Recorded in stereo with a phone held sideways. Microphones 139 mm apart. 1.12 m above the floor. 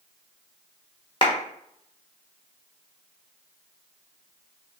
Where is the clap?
35° left (ahead or behind), 1.0 m.